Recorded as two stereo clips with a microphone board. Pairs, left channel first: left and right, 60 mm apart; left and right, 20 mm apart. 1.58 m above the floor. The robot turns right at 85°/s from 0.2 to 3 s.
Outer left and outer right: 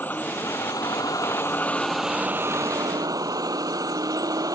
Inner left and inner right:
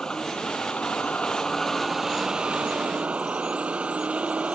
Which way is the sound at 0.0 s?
30° left.